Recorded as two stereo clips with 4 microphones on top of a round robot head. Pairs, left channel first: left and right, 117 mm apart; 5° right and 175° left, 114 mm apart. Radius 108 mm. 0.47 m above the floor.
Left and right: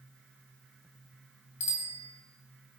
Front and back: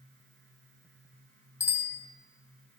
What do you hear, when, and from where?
1.6 s a bicycle bell: 60° left, 2.5 m